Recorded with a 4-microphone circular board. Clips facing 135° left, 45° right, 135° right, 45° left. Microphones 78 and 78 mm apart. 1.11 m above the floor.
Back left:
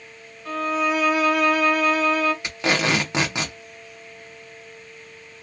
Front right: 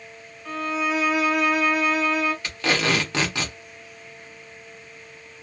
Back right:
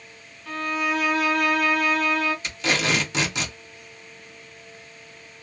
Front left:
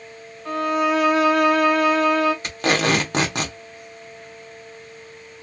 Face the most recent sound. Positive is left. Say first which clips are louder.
# back left 1 dB, front left 5 dB
turn(degrees=70)